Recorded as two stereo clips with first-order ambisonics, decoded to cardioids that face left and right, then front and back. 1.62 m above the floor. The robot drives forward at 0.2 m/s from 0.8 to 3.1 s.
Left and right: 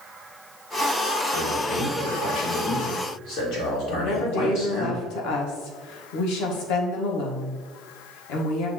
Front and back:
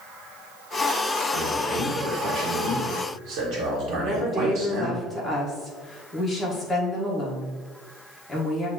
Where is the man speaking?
120° left, 1.5 m; by 5.0 s 135° left, 1.7 m.